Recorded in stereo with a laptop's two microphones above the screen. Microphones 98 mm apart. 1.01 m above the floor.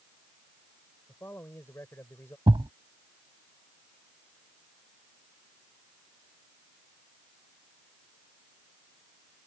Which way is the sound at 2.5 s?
65° right (ahead or behind).